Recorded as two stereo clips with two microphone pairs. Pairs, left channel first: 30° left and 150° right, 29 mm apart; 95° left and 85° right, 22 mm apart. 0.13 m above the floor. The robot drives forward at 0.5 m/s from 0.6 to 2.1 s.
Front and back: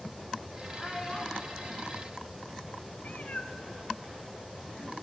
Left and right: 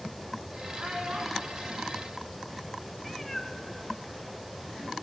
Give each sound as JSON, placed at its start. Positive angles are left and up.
{"t": 0.8, "sound": "a child speaking", "azimuth_deg": -40, "distance_m": 5.5}
{"t": 3.0, "sound": "a cat meowing", "azimuth_deg": 25, "distance_m": 1.1}